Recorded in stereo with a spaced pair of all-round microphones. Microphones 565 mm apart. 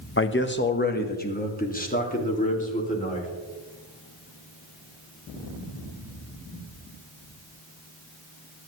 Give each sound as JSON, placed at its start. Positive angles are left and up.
{"t": 0.2, "sound": "a man speaking", "side_deg": 20, "distance_m": 0.9}